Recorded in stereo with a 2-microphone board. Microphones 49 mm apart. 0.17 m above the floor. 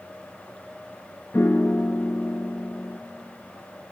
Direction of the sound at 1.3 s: 60° left (ahead or behind).